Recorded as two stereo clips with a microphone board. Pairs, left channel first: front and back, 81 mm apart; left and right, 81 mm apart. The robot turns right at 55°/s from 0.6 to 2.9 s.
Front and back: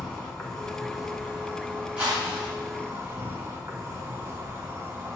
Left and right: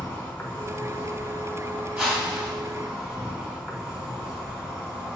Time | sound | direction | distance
0.0 | an insect | 75° left | 1.3 m
2.0 | a whoosh | 155° right | 1.6 m